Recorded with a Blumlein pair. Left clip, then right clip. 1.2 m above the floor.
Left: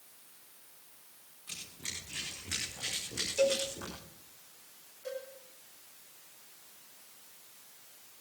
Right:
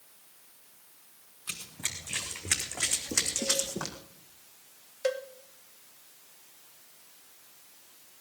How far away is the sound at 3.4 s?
About 4.5 m.